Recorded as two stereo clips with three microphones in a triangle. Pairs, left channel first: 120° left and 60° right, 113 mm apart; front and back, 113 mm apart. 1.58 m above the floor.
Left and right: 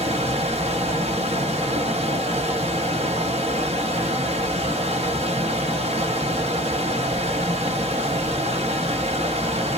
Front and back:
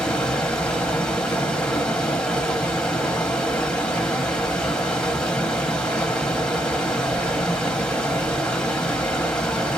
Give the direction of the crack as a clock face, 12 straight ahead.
I don't hear a crack.